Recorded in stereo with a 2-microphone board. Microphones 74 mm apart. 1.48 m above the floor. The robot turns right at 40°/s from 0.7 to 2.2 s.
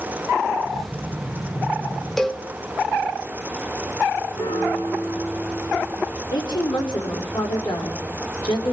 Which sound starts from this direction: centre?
A cowbell, at 2.2 s.